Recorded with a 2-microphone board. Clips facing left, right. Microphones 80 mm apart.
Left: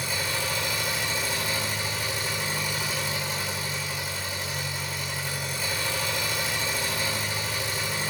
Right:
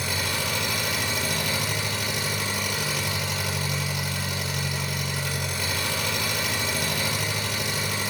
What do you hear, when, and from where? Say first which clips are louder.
0.0 s an engine running: right 1 dB; 75° right (ahead or behind), 2.5 m